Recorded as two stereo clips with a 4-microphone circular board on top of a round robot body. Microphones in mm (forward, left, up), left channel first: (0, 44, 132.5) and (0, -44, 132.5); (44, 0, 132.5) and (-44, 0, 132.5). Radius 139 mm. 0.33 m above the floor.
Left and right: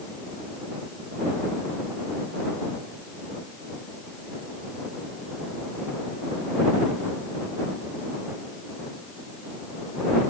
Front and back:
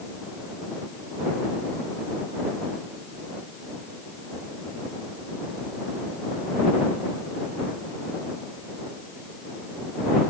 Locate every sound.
Only background noise.